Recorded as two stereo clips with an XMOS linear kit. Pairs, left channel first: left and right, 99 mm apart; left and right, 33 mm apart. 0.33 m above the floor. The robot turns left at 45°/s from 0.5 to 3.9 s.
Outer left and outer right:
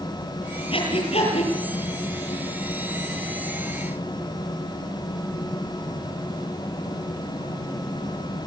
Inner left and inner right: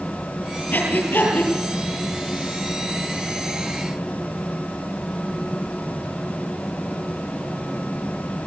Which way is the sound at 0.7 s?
65° left (ahead or behind).